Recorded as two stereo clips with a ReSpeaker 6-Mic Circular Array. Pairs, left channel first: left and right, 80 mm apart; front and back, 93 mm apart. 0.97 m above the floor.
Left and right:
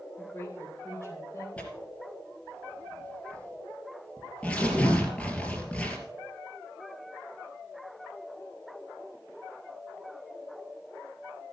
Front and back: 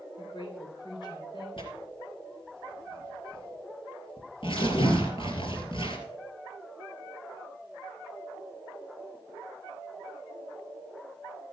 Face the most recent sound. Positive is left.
turn(degrees=15)